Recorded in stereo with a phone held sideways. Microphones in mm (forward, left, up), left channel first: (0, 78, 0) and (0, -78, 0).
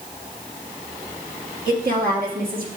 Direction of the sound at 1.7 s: 65° right (ahead or behind).